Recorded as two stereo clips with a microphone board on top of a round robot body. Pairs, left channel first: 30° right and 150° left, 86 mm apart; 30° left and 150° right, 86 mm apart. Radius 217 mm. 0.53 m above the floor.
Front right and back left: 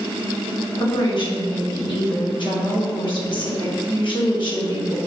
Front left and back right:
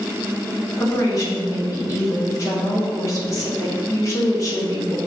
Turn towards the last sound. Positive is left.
turn(degrees=-20)